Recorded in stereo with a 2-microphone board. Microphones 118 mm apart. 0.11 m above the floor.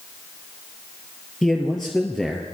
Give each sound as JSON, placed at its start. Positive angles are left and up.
{"t": 1.4, "sound": "a man speaking", "side_deg": 5, "distance_m": 2.5}